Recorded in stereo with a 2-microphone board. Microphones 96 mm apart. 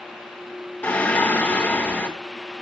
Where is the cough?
No cough in this recording.